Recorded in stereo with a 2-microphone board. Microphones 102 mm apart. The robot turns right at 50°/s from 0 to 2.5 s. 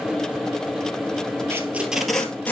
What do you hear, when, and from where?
1.5 s tape being pulled: 25° right (ahead or behind), 1.6 m; by 2.5 s 20° left (ahead or behind), 1.6 m